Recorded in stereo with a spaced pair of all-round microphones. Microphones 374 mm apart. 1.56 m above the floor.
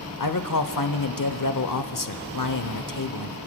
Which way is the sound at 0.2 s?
60° left (ahead or behind).